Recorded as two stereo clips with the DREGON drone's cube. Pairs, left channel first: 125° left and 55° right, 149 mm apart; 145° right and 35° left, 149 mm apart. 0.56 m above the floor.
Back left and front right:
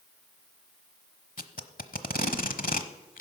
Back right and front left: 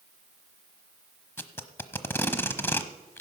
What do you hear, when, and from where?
1.4 s tape being pulled: 140° left, 0.9 m